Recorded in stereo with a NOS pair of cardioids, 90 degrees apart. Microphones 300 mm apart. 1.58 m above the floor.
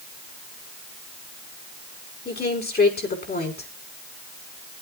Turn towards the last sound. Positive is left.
turn(degrees=30)